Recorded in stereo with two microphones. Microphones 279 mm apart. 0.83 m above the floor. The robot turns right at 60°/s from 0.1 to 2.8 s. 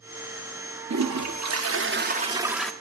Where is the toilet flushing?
105° right, 0.7 m; by 2.7 s 5° left, 0.7 m.